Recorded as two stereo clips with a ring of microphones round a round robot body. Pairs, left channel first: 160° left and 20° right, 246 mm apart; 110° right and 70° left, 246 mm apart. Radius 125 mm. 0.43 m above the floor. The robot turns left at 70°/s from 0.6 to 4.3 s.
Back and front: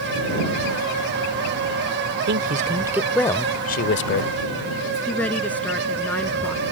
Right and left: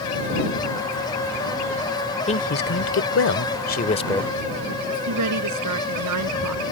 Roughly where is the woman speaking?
Left.